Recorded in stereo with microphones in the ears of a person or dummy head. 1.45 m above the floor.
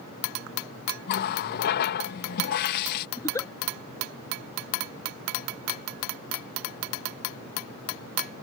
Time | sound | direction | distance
1.1 | a running tap | 55° left (ahead or behind) | ?
3.2 | a giggle | 10° left (ahead or behind) | ?